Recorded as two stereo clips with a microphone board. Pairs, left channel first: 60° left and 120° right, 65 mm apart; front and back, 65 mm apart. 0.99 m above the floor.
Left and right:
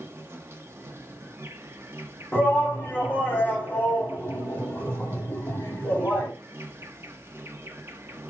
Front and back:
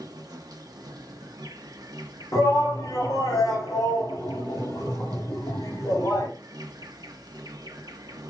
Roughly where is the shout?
Ahead.